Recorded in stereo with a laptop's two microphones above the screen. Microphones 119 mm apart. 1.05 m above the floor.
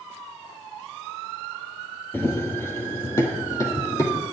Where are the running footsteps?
20° left (ahead or behind), 1.3 m; by 4.2 s 25° left (ahead or behind), 2.5 m.